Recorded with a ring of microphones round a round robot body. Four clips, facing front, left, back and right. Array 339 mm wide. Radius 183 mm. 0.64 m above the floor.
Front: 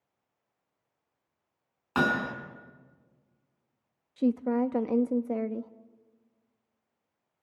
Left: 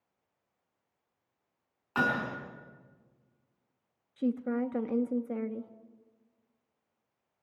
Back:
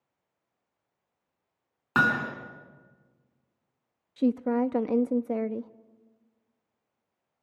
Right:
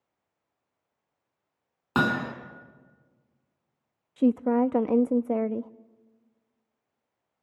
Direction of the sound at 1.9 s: 110° right.